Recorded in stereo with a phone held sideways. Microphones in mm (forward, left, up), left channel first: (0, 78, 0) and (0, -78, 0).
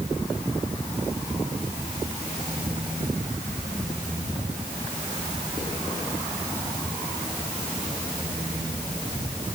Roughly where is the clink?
No clink in this recording.